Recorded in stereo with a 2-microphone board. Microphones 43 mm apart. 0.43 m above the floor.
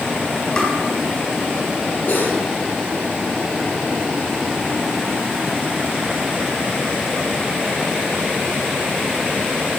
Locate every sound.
0.6 s tapping: 20° left (ahead or behind), 3 m
2.1 s cutlery clinking: 55° left (ahead or behind), 5 m